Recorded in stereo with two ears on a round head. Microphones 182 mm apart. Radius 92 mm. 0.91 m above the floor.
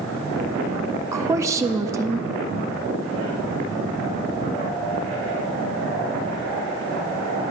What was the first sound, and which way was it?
A woman speaking, 15° right (ahead or behind).